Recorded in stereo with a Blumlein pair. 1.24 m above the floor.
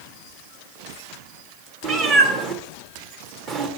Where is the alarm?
I don't hear an alarm.